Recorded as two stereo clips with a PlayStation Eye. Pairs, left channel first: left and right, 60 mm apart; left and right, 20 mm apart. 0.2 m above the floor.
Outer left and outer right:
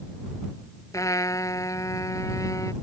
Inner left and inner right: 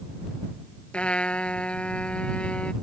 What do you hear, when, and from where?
0.9 s a trumpet: 65° left (ahead or behind)